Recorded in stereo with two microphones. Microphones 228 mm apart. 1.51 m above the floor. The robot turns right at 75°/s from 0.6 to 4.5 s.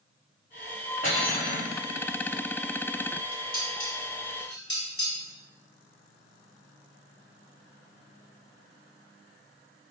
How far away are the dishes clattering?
About 0.9 m.